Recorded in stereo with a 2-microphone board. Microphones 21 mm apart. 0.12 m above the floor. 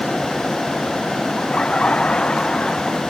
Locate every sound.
1.4 s laughter: 60° left (ahead or behind); by 3.0 s 50° left (ahead or behind)